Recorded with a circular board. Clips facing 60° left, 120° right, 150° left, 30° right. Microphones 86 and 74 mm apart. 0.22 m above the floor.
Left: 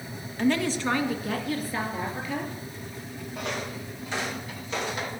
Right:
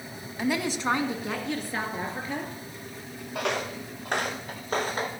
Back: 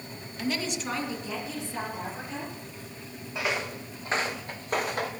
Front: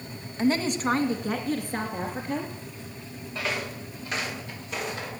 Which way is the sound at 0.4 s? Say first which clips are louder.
Left 3 dB, front 7 dB; 45° right.